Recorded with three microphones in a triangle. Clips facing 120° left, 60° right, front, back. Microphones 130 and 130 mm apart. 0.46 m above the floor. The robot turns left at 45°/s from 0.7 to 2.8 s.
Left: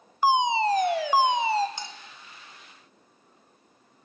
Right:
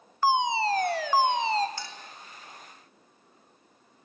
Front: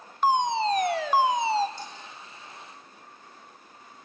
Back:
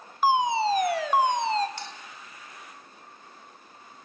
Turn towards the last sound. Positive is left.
turn(degrees=145)